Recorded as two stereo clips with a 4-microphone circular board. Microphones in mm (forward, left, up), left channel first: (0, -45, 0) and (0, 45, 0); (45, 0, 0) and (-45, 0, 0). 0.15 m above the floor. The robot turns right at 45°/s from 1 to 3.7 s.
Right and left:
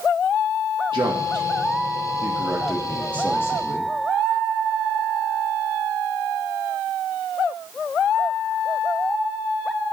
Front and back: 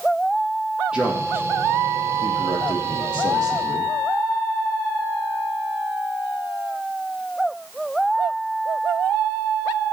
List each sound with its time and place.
0.9 s a man speaking: 100° left, 4 m; by 3.9 s 135° right, 4 m